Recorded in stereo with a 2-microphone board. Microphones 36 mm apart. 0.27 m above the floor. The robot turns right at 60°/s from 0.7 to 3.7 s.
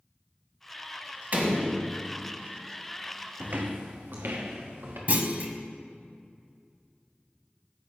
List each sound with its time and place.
1.3 s a door slam: 110° right, 1.6 m; by 2.0 s 70° right, 1.6 m
3.4 s footsteps: 35° right (ahead or behind), 0.7 m; by 5.0 s 85° right, 2.5 m
5.1 s a clunk: 45° right (ahead or behind), 0.7 m